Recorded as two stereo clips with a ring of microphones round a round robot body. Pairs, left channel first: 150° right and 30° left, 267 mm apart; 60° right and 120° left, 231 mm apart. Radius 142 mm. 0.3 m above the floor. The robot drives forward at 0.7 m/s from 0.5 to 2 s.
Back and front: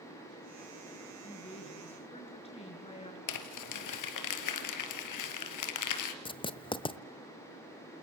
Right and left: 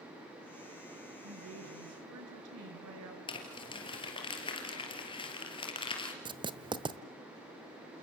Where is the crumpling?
135° right, 2.5 m.